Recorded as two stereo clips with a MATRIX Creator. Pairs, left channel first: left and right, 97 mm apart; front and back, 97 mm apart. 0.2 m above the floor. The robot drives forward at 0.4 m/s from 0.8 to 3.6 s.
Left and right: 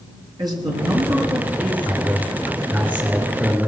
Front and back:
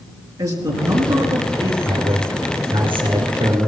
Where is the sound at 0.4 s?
130° right, 3.5 m; by 1.8 s 135° right, 4 m.